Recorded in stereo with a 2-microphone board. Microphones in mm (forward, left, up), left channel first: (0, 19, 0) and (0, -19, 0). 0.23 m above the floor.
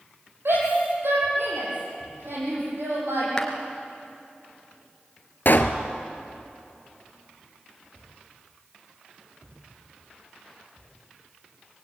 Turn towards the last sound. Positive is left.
turn(degrees=60)  # may be behind; listen again after turning